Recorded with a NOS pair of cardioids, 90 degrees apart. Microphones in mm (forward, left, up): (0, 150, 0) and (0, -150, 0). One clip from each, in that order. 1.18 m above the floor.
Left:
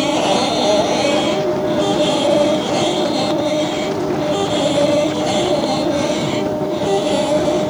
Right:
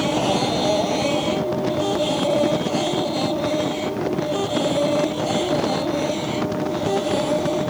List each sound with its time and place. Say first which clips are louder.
0.0 s a machine running: left 5 dB; 40° left